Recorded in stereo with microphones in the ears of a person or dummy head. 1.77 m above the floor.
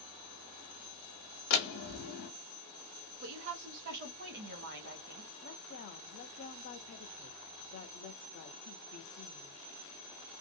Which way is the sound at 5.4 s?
45° left (ahead or behind).